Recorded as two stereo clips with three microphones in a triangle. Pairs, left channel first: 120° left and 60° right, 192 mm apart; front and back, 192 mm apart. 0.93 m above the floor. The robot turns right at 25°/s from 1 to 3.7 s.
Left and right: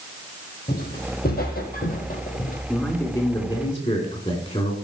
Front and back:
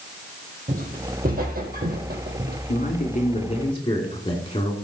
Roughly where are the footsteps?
Behind left.